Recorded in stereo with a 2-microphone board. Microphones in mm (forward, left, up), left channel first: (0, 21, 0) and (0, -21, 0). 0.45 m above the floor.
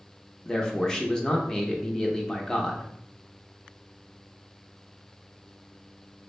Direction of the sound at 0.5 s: 15° left (ahead or behind).